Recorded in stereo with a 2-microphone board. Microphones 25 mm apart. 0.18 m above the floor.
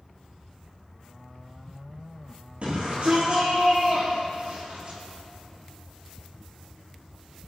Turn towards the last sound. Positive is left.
turn(degrees=-40)  # may be behind; listen again after turning